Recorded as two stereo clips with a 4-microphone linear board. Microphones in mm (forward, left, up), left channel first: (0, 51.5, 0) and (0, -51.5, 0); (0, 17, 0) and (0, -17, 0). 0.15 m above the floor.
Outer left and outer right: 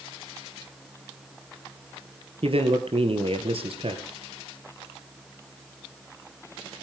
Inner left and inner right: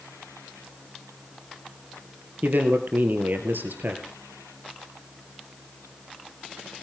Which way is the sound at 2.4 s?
65° right (ahead or behind).